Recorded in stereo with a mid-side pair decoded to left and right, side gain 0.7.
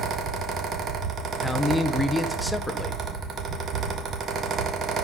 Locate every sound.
0.0 s a fan: 40° right, 1.6 m
1.4 s a man speaking: 5° left, 1.0 m